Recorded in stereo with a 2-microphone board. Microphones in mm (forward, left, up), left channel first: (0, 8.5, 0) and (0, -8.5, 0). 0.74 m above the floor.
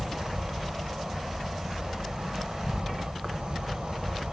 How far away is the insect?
About 1.0 m.